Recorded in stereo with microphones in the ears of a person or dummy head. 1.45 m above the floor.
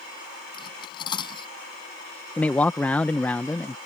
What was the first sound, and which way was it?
Cutlery clinking, 20° left (ahead or behind).